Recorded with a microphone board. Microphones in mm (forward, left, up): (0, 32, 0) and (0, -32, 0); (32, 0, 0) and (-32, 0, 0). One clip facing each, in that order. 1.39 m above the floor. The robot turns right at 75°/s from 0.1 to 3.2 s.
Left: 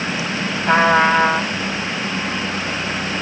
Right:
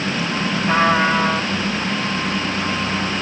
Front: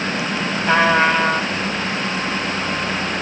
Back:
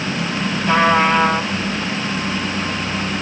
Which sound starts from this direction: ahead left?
A trumpet, at 0.7 s.